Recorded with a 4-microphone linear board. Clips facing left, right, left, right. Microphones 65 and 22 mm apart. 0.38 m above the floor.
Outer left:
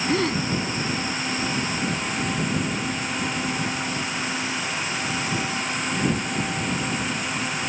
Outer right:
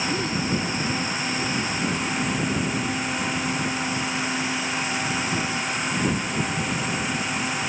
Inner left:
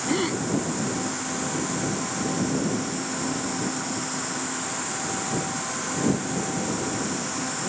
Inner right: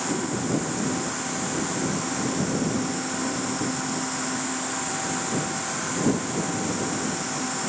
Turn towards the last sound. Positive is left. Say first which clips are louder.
# outer left 3 dB, inner left 6 dB
turn(degrees=70)  # may be behind; listen again after turning